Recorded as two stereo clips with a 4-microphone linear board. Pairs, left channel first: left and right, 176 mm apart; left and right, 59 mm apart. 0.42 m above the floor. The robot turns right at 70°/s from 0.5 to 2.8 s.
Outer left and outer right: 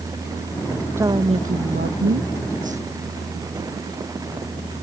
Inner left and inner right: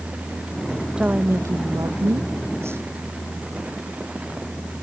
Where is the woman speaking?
165° right; by 2.8 s 35° right.